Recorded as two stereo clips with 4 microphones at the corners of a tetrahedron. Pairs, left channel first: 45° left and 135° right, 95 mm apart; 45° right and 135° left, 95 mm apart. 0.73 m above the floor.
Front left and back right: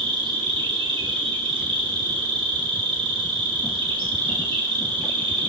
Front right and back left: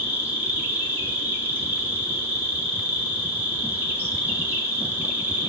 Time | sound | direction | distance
0.0 | an insect | 155° right | 1.8 m